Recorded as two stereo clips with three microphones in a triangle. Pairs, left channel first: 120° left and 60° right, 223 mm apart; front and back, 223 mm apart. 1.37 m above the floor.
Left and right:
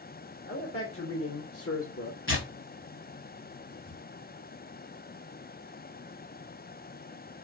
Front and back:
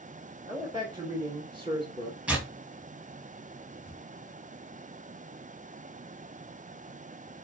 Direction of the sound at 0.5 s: 105° left.